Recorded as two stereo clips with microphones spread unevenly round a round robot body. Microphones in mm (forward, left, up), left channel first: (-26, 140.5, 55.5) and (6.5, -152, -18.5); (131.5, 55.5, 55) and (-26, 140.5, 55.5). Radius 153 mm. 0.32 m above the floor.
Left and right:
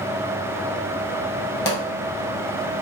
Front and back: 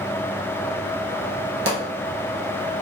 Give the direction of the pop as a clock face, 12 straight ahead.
6 o'clock.